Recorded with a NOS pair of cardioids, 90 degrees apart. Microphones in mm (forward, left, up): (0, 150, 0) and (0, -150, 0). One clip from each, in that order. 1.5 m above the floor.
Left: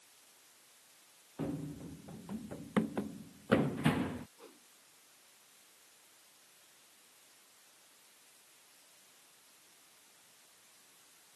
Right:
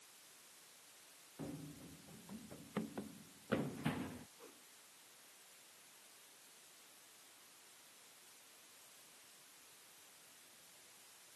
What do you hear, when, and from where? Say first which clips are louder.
1.4 s running footsteps: left 10 dB; 65° left
4.4 s a whoosh: left 3 dB; 40° left